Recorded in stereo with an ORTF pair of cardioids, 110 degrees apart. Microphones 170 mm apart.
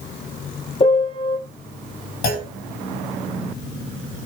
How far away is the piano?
About 2 m.